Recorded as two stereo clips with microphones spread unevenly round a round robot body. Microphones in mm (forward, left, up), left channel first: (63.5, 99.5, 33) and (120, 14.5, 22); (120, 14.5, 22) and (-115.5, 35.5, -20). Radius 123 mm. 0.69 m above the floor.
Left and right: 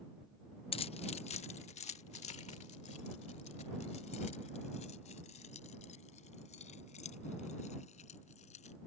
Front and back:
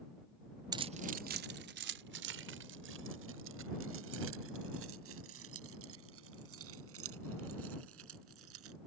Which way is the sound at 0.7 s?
115° left.